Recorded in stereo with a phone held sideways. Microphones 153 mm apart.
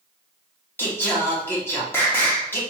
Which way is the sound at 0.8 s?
15° left (ahead or behind).